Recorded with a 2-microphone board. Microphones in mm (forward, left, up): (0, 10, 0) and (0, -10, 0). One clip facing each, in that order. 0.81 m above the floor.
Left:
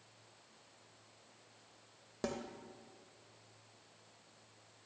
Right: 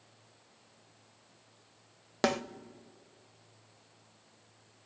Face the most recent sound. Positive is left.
turn(degrees=-55)  # may be behind; listen again after turning